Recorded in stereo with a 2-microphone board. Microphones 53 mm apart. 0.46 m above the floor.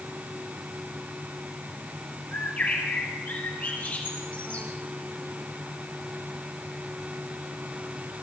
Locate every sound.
2.3 s a bird: 25° left (ahead or behind), 5 m